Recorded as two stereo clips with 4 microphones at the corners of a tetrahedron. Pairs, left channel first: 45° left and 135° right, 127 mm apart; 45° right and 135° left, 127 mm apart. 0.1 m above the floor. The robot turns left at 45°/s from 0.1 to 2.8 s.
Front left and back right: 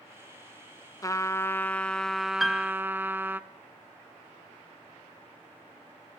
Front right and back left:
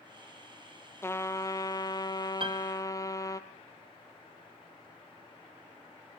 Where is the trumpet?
5° left, 0.6 m; by 3.4 s 75° right, 0.6 m.